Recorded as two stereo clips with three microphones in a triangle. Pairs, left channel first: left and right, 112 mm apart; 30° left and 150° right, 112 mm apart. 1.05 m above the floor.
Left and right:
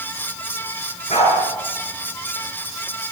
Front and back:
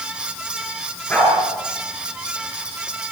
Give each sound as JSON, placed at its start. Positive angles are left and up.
{"t": 1.1, "sound": "a dog barking", "azimuth_deg": 105, "distance_m": 8.5}